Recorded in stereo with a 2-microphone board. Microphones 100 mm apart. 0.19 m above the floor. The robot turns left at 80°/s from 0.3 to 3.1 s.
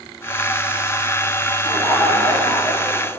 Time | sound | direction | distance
1.6 | laughter | 155° left | 4.5 m